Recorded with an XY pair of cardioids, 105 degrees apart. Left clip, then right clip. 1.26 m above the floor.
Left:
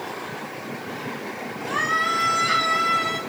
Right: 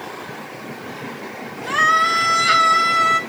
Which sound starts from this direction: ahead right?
A scream, at 1.7 s.